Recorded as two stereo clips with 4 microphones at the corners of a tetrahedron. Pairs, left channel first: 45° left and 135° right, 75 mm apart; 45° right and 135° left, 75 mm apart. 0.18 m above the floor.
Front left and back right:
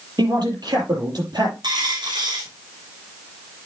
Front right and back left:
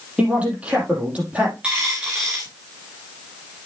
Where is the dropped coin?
150° right, 4 m.